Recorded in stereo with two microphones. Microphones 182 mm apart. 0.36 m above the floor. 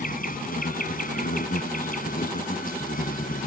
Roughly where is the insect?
Left.